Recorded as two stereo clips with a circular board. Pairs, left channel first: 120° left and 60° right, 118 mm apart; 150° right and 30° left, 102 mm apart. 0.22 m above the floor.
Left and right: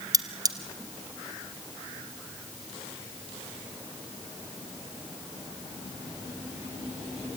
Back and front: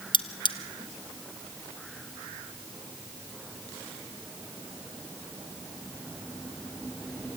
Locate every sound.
0.1 s cutlery clinking: 115° right, 1.5 m